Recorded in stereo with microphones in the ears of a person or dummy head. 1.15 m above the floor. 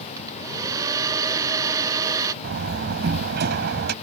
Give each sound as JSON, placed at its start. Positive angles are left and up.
{"t": 0.2, "sound": "a hair dryer", "side_deg": -25}
{"t": 2.4, "sound": "a door slam", "side_deg": -55}